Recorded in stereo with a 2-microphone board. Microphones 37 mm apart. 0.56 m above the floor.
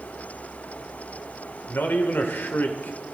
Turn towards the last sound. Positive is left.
turn(degrees=65)  # may be behind; listen again after turning